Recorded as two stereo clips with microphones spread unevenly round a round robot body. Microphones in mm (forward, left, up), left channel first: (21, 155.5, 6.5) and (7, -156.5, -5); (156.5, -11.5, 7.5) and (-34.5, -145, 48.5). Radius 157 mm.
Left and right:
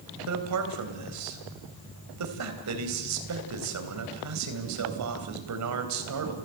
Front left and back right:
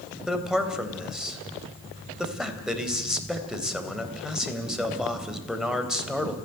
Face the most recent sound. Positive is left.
turn(degrees=-55)